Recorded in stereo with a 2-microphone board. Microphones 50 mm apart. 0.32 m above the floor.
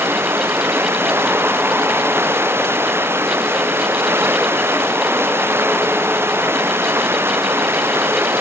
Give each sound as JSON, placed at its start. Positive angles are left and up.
{"t": 0.0, "sound": "running water", "side_deg": -55}